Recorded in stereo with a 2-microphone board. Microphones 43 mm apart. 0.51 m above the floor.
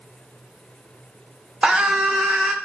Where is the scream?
20° right (ahead or behind), 1.2 m.